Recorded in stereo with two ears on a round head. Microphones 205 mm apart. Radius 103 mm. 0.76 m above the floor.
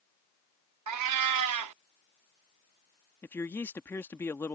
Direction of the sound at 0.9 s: 85° right.